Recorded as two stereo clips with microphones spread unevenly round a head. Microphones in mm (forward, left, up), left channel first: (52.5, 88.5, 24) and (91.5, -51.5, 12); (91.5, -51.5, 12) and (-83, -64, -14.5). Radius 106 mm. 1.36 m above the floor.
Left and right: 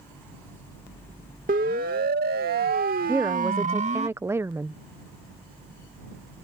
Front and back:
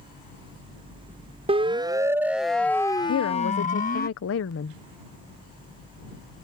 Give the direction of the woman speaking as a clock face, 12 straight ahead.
12 o'clock.